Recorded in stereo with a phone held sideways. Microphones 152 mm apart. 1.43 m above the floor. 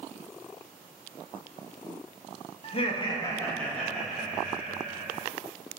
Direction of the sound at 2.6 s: 45° left (ahead or behind).